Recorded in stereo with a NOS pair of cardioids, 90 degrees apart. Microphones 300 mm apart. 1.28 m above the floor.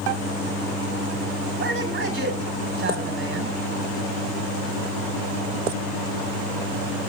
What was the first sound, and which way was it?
A man speaking, 45° right.